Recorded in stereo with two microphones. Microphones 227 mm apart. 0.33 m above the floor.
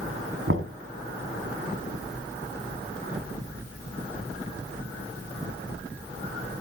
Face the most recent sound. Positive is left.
turn(degrees=-70)  # may be behind; listen again after turning